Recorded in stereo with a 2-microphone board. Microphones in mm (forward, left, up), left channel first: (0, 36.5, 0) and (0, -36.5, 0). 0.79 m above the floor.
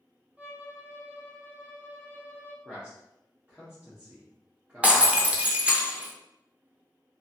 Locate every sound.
0.4 s a violin: 20° right (ahead or behind), 0.8 m
2.6 s a man speaking: 20° right (ahead or behind), 0.9 m
4.8 s breaking glass: 20° right (ahead or behind), 0.6 m